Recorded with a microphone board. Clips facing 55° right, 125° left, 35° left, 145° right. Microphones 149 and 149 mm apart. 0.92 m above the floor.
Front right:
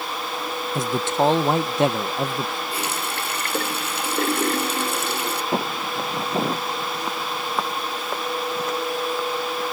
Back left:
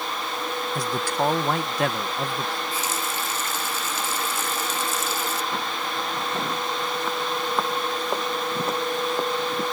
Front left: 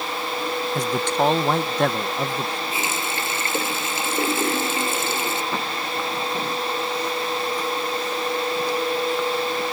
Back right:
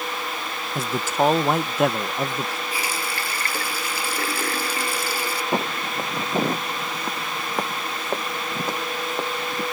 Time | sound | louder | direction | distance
0.8 | a man speaking | front right 5 dB, even | 70° right | ?
2.7 | a running tap | front right 1 dB, front left 2 dB | 35° right | ?
5.5 | footsteps | front right 4 dB, back right 2 dB | 90° right | ?